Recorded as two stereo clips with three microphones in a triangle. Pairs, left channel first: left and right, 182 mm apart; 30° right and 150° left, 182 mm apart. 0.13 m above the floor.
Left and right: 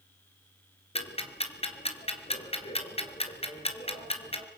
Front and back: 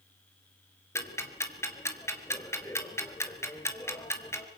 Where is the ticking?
40° left, 2.5 m.